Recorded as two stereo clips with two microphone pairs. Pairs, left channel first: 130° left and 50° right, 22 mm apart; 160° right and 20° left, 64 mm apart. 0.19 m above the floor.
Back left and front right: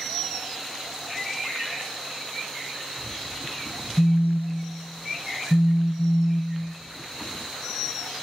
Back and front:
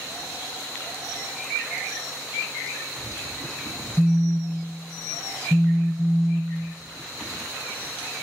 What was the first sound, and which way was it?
A phone buzzing, 115° left.